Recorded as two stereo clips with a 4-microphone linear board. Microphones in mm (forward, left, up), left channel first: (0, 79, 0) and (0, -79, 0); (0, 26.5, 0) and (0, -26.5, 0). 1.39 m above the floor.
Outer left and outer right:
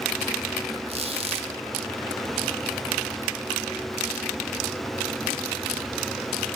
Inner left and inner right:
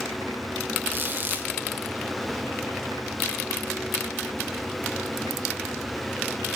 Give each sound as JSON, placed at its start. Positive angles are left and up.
{"t": 0.9, "sound": "a squeak", "side_deg": -35, "distance_m": 1.3}